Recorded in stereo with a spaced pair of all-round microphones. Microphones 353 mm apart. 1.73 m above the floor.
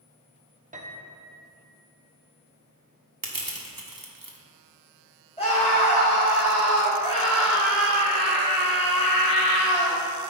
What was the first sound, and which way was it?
A piano, 20° right (ahead or behind).